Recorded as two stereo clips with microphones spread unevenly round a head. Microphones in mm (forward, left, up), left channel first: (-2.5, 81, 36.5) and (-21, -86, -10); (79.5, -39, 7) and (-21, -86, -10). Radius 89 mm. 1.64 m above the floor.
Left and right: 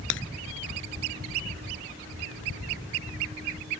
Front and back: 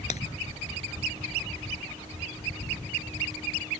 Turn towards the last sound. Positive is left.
turn(degrees=70)